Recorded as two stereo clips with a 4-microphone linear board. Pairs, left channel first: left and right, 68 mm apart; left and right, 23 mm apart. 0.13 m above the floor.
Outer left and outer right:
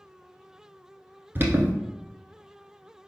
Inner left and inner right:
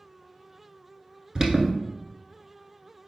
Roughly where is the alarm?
Right.